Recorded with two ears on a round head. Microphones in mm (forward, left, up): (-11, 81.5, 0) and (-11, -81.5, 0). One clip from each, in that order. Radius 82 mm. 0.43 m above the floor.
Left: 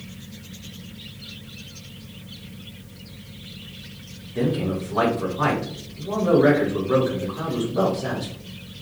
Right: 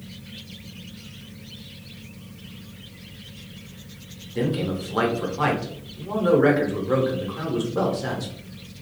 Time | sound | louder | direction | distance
4.3 | a man speaking | left 1 dB | 40° right (ahead or behind) | 0.9 m